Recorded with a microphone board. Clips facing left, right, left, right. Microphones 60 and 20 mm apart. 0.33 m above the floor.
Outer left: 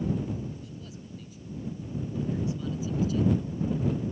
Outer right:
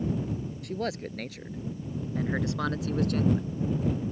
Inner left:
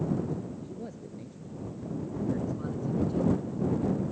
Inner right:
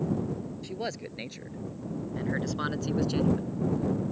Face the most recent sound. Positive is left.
turn(degrees=-60)  # may be behind; listen again after turning